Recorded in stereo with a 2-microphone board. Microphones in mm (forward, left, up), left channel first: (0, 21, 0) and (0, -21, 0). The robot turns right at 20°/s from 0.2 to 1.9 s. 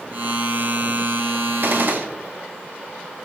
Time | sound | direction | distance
1.6 | a gunshot | 50° right (ahead or behind) | 0.7 m